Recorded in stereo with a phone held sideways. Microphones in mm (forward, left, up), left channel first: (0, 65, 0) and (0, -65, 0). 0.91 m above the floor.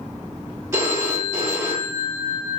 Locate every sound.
0.7 s a phone ringing: 20° right (ahead or behind), 1.1 m